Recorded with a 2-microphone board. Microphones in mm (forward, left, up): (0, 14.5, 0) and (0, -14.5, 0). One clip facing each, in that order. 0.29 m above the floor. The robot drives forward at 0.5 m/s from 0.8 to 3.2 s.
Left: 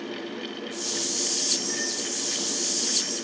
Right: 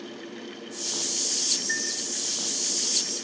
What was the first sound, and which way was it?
A chime, 60° right (ahead or behind).